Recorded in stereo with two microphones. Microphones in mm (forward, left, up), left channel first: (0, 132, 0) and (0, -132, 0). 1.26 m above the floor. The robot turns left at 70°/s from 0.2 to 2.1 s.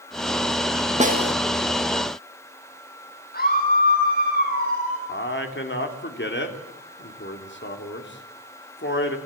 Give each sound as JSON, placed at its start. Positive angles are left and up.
{"t": 1.0, "sound": "a snare drum", "side_deg": -25, "distance_m": 1.4}
{"t": 3.3, "sound": "a scream", "side_deg": 35, "distance_m": 10.0}
{"t": 5.1, "sound": "a man speaking", "side_deg": 45, "distance_m": 3.0}